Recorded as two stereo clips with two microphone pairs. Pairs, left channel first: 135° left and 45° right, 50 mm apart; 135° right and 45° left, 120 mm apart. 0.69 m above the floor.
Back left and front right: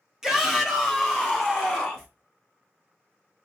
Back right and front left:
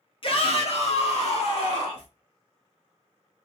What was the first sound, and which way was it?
A shout, 125° right.